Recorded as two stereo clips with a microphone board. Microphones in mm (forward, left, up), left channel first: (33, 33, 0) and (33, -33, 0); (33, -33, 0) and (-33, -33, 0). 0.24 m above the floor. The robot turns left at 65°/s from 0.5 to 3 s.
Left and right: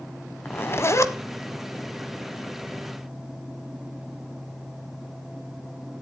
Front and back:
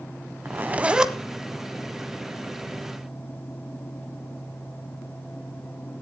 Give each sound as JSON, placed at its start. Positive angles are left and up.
{"t": 0.5, "sound": "a zipper", "azimuth_deg": 140, "distance_m": 1.2}